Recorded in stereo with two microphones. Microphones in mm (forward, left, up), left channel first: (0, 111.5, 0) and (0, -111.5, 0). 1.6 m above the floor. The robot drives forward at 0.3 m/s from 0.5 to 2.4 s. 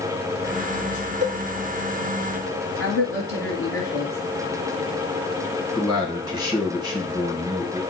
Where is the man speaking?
20° right (ahead or behind), 1.4 m.